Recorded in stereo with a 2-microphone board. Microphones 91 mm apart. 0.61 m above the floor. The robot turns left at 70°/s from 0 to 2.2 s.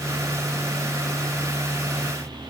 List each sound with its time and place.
Only background noise.